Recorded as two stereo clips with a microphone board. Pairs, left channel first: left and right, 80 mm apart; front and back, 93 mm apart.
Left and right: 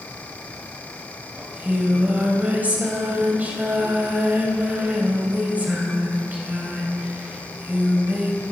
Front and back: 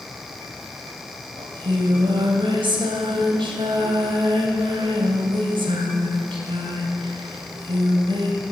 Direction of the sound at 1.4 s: 160° right.